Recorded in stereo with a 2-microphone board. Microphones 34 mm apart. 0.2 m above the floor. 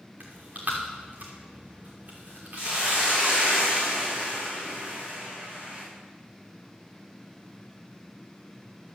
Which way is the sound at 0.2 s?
45° right (ahead or behind).